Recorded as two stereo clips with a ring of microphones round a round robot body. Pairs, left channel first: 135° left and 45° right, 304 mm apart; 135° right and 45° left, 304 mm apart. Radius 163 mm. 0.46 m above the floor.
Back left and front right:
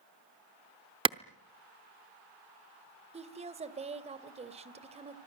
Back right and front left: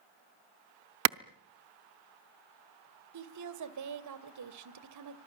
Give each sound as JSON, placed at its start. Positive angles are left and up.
{"t": 1.1, "sound": "a clap", "azimuth_deg": 25, "distance_m": 0.7}
{"t": 3.1, "sound": "a woman speaking", "azimuth_deg": 25, "distance_m": 2.0}